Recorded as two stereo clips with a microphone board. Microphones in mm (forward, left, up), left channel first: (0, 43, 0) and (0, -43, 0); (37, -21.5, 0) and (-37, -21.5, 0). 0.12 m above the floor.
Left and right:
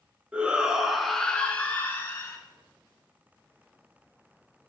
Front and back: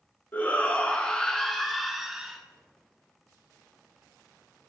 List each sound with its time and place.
0.3 s a shout: 30° right, 1.1 m; by 2.4 s 105° left, 1.2 m